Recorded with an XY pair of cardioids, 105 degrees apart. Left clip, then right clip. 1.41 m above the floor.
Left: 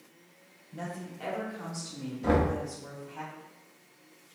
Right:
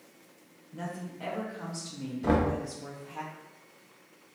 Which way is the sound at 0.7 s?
25° left.